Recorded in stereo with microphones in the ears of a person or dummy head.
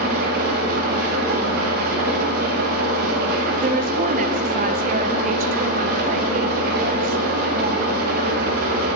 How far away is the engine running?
About 1.3 m.